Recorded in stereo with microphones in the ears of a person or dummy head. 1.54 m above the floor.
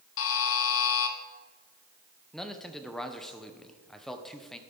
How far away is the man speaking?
About 0.8 m.